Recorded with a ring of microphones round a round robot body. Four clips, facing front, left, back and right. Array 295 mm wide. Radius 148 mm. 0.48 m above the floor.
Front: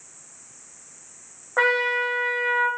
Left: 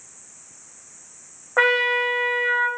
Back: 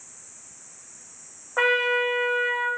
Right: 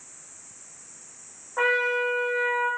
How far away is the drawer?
No drawer in this recording.